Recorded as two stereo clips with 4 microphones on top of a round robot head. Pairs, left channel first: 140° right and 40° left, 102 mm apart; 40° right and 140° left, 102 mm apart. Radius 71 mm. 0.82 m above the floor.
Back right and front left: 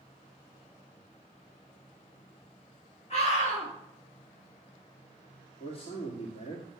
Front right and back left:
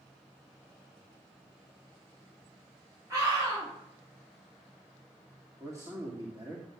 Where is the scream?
165° right, 5.5 m.